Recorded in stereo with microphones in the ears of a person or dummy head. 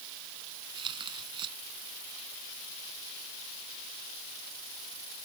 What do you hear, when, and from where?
0.8 s tearing paper: 30° right (ahead or behind)